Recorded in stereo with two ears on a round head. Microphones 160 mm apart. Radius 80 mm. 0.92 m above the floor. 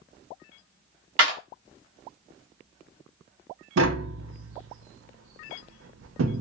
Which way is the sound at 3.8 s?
80° right.